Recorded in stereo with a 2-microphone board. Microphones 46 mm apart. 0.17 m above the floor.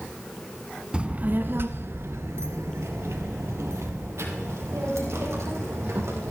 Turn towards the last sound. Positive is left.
turn(degrees=-80)